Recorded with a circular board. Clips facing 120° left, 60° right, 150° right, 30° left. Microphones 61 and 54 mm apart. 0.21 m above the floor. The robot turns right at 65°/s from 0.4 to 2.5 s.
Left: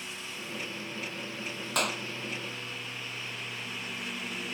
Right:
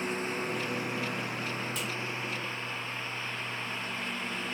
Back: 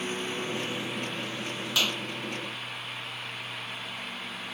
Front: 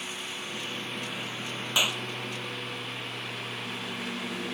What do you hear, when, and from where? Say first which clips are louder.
0.0 s a lawn mower: right 9 dB, back 5 dB; 100° right; by 4.5 s 35° left
1.8 s a clap: left 4 dB, front 1 dB; 100° left; by 2.0 s 120° left